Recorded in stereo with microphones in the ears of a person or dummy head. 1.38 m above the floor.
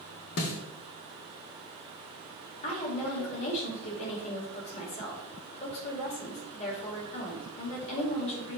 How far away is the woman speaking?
About 2 m.